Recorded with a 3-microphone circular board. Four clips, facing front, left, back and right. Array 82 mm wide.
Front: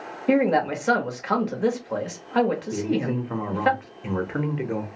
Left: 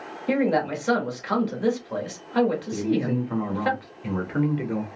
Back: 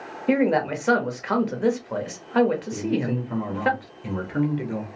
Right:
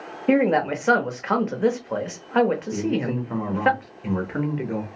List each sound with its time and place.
0.3 s a man speaking: 105° right, 0.9 m
2.7 s a man speaking: 15° right, 0.8 m